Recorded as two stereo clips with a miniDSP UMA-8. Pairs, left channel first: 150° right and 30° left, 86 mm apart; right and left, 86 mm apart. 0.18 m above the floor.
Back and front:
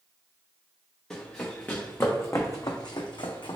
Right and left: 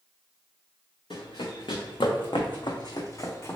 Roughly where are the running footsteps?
Right.